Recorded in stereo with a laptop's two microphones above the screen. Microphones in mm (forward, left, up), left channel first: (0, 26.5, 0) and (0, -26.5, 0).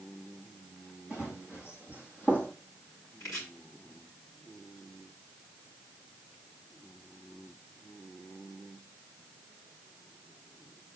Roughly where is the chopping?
Left.